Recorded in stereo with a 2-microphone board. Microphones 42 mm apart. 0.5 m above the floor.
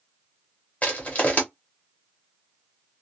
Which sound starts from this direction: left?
Crushing, at 0.8 s.